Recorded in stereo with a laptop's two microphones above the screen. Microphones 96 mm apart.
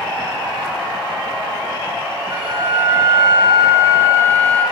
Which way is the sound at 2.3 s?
65° right (ahead or behind).